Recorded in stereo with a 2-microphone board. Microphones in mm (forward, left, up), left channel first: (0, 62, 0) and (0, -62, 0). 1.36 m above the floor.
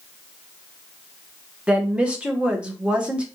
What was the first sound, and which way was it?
A woman speaking, 10° right (ahead or behind).